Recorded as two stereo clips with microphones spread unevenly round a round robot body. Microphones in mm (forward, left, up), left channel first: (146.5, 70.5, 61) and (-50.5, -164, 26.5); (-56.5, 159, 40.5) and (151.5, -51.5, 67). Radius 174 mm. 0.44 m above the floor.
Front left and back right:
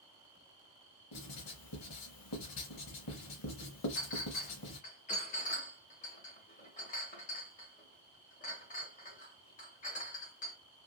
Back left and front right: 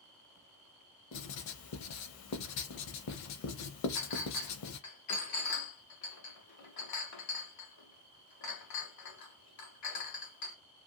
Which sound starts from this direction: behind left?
A clink, at 4.0 s.